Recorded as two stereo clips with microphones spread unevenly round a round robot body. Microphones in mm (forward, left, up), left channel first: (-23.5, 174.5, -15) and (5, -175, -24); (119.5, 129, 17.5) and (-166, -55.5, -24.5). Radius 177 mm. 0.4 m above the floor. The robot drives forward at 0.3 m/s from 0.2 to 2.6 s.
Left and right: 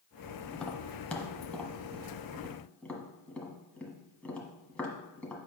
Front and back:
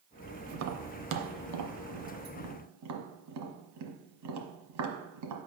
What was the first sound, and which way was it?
Tapping, straight behind.